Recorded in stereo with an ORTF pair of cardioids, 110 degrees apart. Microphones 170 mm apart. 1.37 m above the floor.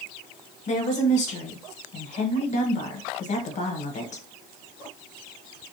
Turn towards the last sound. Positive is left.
turn(degrees=45)